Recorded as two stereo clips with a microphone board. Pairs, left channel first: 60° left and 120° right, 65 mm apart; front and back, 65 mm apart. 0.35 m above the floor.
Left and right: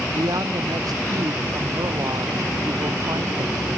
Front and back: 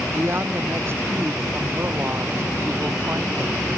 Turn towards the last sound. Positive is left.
turn(degrees=-130)